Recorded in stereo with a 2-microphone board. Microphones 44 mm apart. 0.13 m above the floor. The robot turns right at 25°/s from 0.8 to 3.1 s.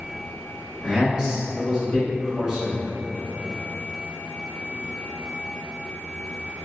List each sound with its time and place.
0.8 s a man speaking: 20° right (ahead or behind), 1.1 m; by 2.8 s 15° right (ahead or behind), 1.1 m